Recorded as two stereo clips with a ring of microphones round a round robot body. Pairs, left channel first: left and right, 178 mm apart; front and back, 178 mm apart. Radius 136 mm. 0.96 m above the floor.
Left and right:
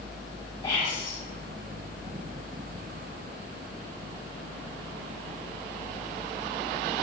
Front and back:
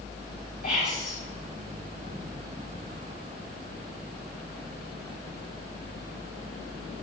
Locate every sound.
0.6 s whispering: 25° left, 5 m